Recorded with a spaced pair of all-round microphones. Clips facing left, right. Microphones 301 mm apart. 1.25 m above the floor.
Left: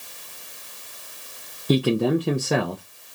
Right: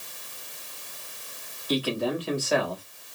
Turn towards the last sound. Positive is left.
turn(degrees=55)  # may be behind; listen again after turning